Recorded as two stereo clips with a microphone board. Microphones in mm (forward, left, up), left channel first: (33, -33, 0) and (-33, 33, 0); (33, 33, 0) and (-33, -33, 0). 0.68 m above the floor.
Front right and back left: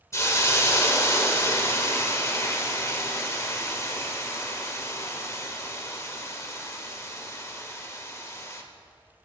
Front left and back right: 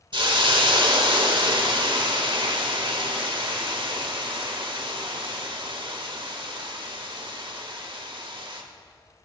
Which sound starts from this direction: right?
A hiss, at 0.1 s.